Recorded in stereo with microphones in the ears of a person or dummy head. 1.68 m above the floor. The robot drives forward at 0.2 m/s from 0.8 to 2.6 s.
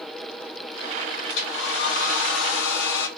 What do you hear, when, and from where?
1.3 s a hair dryer: 60° left (ahead or behind), 0.6 m; by 3.1 s 70° left (ahead or behind), 0.6 m